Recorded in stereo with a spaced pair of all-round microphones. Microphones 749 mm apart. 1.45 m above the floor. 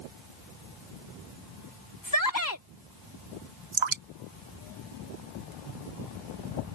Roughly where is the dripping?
Right.